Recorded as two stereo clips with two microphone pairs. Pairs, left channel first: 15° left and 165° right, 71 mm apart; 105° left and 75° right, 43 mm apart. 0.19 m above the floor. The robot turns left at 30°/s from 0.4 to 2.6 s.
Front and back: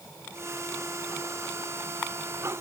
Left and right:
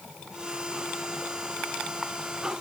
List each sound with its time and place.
Only background noise.